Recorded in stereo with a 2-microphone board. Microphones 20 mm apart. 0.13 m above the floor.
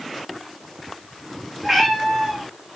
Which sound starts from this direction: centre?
A cat meowing, at 1.6 s.